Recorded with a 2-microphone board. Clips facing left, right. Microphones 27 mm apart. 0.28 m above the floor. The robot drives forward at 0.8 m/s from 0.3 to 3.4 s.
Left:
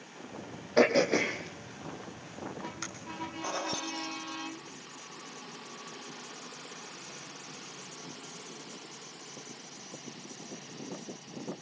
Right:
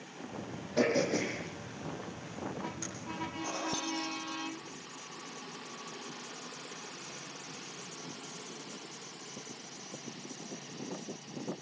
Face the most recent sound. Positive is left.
turn(degrees=55)  # may be behind; listen again after turning